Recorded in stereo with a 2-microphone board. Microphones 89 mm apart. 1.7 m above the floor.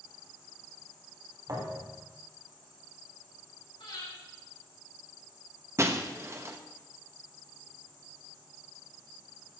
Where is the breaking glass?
30° right (ahead or behind), 1.1 m.